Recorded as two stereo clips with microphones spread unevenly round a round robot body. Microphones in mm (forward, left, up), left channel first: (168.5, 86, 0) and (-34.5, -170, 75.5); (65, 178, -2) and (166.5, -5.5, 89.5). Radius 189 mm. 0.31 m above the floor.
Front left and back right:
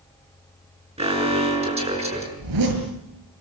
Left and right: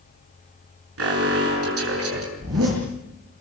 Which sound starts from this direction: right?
A zipper, at 2.4 s.